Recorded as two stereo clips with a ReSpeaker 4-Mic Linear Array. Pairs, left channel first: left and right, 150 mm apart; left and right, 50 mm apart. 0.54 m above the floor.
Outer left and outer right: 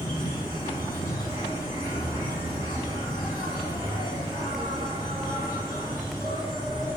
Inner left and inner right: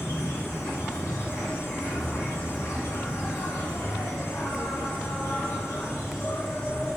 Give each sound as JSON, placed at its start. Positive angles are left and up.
{"t": 0.0, "sound": "an insect", "side_deg": 80, "distance_m": 2.5}